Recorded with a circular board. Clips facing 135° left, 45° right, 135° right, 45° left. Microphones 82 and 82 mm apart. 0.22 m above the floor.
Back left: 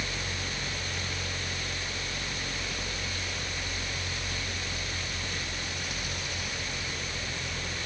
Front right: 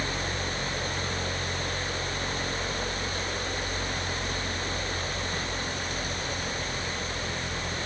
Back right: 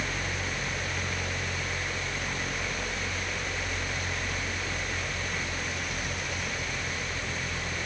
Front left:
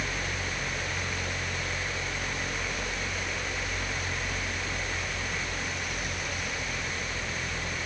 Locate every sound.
Only background noise.